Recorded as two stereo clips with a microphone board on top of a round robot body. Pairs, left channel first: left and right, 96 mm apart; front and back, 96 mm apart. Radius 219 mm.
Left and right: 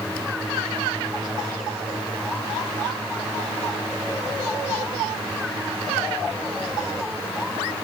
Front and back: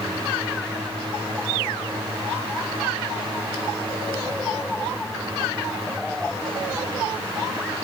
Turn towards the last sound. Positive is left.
No sound to turn to.